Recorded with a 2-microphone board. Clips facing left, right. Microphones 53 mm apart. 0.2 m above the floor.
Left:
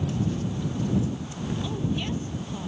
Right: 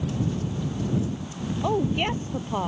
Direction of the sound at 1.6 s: 60° right (ahead or behind).